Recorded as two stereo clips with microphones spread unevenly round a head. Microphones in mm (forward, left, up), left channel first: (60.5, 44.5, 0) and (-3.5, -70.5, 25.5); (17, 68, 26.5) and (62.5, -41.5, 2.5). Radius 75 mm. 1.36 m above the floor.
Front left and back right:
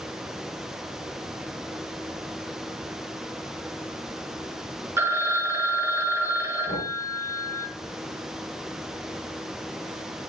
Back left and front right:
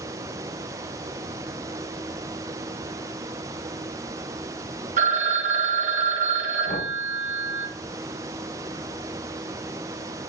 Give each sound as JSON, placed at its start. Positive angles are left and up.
{"t": 5.0, "sound": "a phone ringing", "azimuth_deg": -55, "distance_m": 1.7}
{"t": 6.7, "sound": "knocking", "azimuth_deg": 100, "distance_m": 3.5}